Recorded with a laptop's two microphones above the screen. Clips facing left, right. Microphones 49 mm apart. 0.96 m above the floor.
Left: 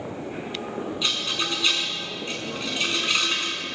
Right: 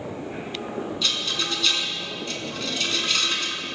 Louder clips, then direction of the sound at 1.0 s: Left 1 dB; 20° left (ahead or behind).